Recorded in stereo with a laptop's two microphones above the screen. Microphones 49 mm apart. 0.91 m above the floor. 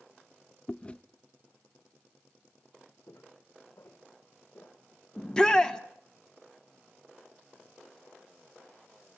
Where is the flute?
No flute in this recording.